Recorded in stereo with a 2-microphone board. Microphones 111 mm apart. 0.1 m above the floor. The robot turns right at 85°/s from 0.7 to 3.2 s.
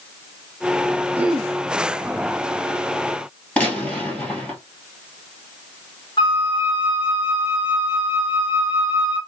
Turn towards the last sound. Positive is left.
turn(degrees=45)  # may be behind; listen again after turning